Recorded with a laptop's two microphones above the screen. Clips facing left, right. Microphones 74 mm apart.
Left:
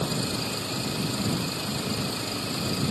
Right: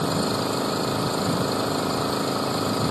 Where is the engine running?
40° right (ahead or behind).